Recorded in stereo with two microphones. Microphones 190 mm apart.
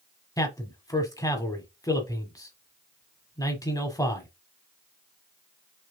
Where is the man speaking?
20° left (ahead or behind), 1.0 m.